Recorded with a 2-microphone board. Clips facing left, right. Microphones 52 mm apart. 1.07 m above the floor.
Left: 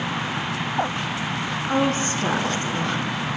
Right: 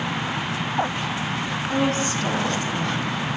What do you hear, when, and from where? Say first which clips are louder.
1.7 s a woman speaking: left 1 dB; 50° left (ahead or behind), 1.2 m